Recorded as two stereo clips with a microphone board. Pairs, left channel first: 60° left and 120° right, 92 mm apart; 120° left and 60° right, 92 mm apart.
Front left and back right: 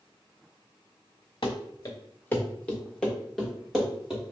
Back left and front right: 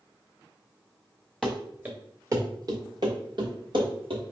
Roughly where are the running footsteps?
Ahead left.